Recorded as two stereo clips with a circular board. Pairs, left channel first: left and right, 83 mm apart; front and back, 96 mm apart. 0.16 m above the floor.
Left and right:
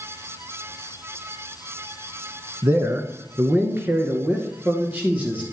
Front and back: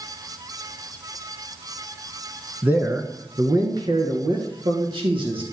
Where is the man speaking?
120° right, 1.4 m; by 5.4 s 160° right, 3.5 m.